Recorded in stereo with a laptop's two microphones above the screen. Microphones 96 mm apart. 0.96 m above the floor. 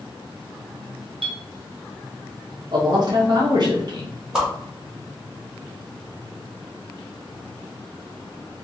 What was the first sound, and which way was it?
A clink, 65° right (ahead or behind).